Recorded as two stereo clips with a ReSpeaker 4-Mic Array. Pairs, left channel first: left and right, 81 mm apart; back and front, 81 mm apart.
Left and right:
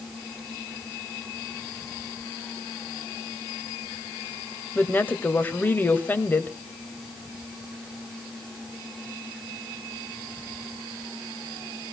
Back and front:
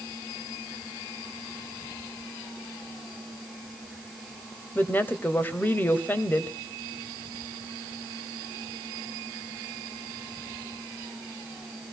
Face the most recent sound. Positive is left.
turn(degrees=135)